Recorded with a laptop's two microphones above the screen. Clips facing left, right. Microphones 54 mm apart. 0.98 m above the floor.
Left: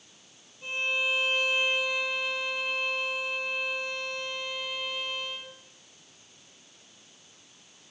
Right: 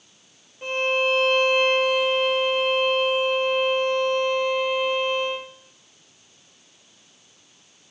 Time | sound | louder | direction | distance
0.6 | a violin | right 7 dB | 55° right (ahead or behind) | 0.5 m